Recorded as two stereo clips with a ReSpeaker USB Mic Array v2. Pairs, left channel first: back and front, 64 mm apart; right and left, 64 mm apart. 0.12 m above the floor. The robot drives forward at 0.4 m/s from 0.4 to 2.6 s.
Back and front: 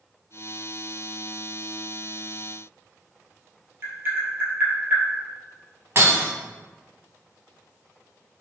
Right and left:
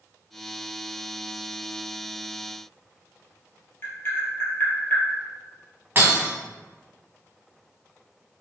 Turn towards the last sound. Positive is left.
turn(degrees=40)